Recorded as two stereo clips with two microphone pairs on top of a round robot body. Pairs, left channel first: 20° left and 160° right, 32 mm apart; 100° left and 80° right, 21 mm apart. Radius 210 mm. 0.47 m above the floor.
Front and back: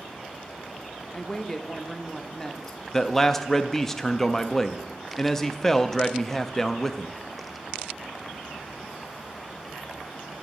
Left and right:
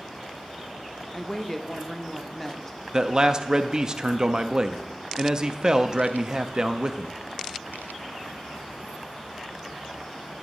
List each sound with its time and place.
1.1 s a woman speaking: 70° left, 0.9 m
2.9 s a man speaking: 30° right, 0.7 m